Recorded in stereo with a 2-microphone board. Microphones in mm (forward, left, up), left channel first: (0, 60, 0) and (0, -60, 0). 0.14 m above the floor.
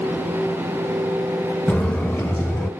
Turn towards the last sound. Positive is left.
turn(degrees=15)  # may be behind; listen again after turning